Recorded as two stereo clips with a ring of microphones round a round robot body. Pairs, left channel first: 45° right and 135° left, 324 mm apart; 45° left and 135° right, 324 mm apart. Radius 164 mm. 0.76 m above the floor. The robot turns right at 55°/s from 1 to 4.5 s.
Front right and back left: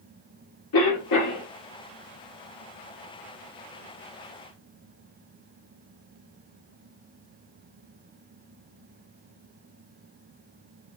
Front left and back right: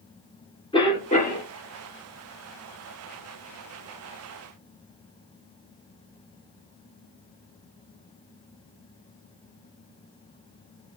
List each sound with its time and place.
0.7 s a cough: 30° right, 2.5 m; by 1.5 s 5° right, 2.5 m